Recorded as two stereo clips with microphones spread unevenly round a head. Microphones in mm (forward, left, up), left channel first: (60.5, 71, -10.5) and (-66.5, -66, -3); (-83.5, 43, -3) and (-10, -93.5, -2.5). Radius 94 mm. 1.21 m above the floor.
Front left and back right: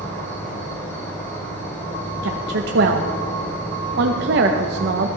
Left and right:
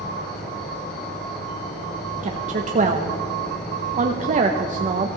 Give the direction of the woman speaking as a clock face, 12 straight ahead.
3 o'clock.